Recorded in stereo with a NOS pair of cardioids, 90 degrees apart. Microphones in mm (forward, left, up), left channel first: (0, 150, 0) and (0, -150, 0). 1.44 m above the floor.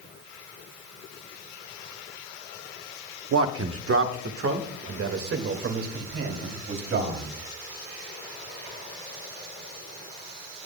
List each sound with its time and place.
3.3 s a man speaking: 50° right, 1.0 m; by 7.3 s 45° right, 3.5 m